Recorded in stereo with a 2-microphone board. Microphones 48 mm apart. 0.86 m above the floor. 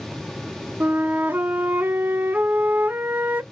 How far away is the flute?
About 0.6 m.